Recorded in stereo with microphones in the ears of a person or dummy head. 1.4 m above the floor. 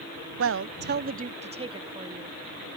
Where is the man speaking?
70° right (ahead or behind); by 2.4 s 20° right (ahead or behind).